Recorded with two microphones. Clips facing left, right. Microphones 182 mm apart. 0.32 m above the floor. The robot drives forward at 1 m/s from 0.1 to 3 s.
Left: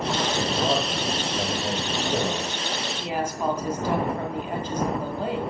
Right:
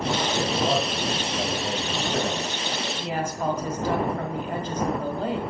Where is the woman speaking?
5° left (ahead or behind), 1.8 m.